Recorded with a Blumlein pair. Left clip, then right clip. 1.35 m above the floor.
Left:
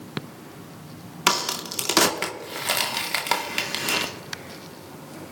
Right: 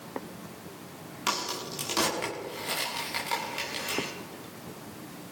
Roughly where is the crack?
Ahead left.